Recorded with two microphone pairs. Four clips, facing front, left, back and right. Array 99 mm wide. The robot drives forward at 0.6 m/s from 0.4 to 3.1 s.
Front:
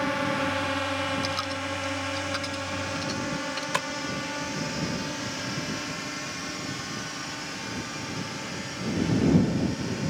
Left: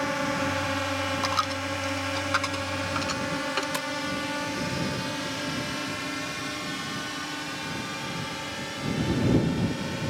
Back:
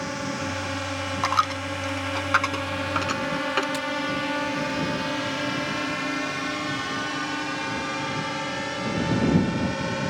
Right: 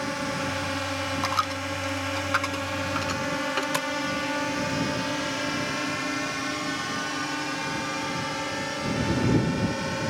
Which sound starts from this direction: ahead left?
A drone, at 0.0 s.